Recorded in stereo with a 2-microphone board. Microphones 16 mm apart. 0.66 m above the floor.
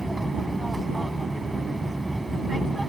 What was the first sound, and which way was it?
An aircraft, 5° left (ahead or behind).